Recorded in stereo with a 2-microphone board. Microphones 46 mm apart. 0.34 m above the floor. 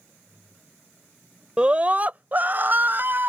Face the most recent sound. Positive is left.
turn(degrees=-45)  # may be behind; listen again after turning